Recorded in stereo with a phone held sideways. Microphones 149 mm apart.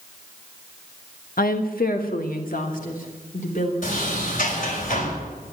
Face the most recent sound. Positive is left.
turn(degrees=60)  # may be behind; listen again after turning